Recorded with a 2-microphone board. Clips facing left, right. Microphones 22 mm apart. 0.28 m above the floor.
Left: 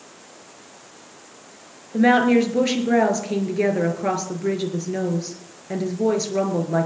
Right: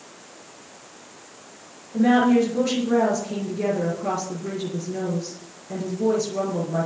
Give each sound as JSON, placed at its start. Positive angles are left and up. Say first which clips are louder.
{"t": 1.9, "sound": "a woman speaking", "louder": "left 2 dB", "side_deg": 50, "distance_m": 4.5}